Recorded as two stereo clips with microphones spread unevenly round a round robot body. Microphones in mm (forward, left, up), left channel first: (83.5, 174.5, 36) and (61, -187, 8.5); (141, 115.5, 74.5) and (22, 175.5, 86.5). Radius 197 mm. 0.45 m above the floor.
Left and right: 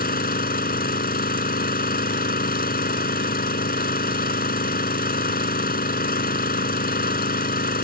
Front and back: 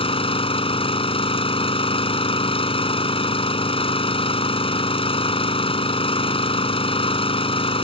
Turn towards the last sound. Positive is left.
turn(degrees=20)